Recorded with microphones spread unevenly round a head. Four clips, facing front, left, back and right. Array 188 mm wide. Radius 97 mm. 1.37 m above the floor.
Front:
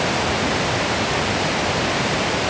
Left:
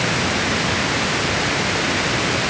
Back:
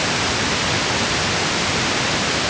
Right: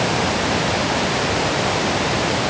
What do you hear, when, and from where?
Only background noise.